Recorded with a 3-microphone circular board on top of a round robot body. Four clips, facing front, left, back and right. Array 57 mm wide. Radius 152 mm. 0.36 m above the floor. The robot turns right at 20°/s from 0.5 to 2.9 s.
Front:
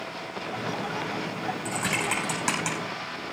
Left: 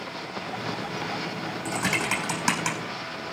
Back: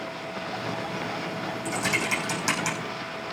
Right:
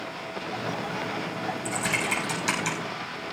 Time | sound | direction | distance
1.6 | typing on a keyboard | 60° left | 5.5 m